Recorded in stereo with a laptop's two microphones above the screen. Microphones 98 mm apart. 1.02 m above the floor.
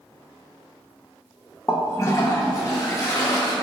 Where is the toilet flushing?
35° left (ahead or behind), 0.7 m.